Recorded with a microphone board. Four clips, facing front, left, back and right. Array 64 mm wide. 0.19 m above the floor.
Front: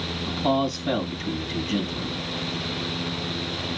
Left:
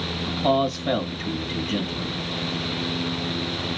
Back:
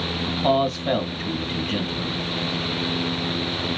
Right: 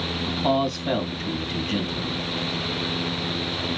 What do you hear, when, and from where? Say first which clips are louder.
0.3 s a man speaking: left 2 dB, back 3 dB; straight behind, 1.5 m